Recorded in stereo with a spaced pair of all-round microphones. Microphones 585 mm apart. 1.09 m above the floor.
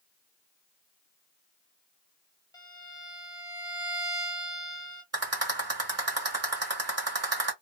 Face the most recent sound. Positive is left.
turn(degrees=-25)  # may be behind; listen again after turning